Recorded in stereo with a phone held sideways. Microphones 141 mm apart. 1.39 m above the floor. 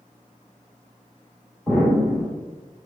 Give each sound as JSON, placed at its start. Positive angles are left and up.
{"t": 1.7, "sound": "an explosion", "side_deg": 0, "distance_m": 1.4}